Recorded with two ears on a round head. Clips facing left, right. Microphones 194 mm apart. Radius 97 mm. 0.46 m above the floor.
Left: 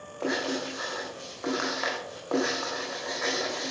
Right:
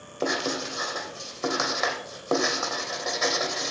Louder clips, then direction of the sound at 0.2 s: Right 1 dB; 60° right (ahead or behind).